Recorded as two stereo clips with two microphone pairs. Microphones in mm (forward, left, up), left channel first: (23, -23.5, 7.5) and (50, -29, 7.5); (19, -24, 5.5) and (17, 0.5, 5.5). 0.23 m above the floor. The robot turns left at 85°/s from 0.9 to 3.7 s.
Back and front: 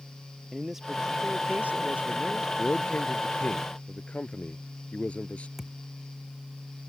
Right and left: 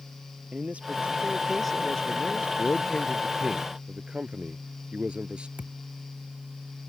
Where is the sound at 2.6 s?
130° right; by 5.5 s 135° left.